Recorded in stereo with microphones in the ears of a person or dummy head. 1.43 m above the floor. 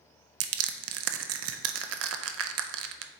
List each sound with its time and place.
0.4 s crushing: 70° right (ahead or behind), 0.5 m